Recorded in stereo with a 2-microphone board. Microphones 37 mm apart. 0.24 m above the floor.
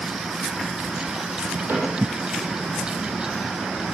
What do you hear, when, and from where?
1.7 s a cupboard door: 80° right, 9 m